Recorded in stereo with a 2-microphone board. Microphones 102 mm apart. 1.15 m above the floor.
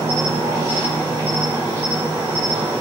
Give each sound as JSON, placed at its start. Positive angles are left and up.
{"t": 0.0, "sound": "an insect", "side_deg": -30, "distance_m": 1.8}